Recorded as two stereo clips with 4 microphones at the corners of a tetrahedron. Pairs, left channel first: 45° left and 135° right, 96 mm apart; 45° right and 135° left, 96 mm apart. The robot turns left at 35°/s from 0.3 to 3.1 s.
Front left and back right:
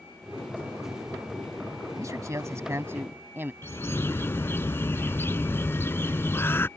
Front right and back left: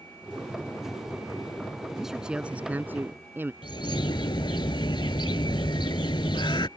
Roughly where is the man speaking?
Behind right.